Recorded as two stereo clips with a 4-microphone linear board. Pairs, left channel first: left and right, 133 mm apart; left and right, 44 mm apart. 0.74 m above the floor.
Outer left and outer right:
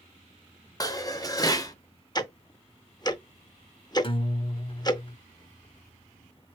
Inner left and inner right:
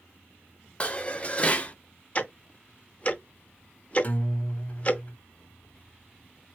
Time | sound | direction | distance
0.8 | dishes clattering | 30° left (ahead or behind) | 0.5 m
2.1 | ticking | 30° left (ahead or behind) | 0.5 m
4.0 | a guitar | 35° left (ahead or behind) | 0.7 m